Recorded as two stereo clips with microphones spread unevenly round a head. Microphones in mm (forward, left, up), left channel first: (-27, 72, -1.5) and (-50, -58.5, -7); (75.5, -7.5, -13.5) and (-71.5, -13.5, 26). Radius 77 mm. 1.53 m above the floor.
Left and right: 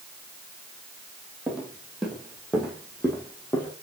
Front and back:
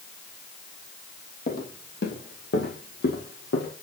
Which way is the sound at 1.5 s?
15° right.